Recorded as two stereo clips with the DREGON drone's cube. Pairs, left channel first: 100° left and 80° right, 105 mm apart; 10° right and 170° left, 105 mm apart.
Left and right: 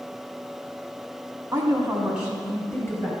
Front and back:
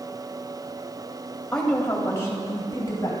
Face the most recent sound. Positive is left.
turn(degrees=30)